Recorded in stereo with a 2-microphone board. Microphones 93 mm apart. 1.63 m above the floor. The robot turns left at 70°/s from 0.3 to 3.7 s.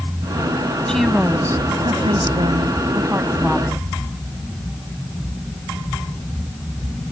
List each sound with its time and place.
0.9 s a woman speaking: 10° left; by 3.9 s 170° left